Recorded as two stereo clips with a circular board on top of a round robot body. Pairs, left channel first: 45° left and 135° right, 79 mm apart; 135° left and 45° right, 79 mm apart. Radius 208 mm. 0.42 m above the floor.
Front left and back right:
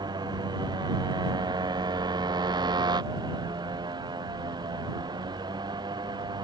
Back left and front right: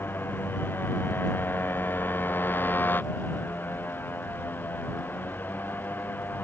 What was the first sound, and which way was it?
A motorcycle, 160° right.